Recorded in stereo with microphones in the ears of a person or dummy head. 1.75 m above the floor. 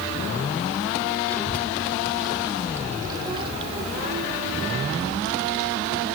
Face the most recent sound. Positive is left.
turn(degrees=-75)  # may be behind; listen again after turning